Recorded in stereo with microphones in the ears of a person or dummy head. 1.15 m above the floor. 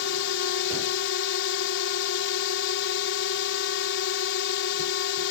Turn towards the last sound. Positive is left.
turn(degrees=60)  # may be behind; listen again after turning